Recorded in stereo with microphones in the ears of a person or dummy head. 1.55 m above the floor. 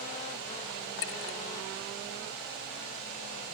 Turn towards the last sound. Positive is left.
turn(degrees=65)  # may be behind; listen again after turning